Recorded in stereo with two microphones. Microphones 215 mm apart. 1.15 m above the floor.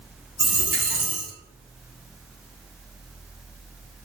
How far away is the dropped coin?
About 1.8 m.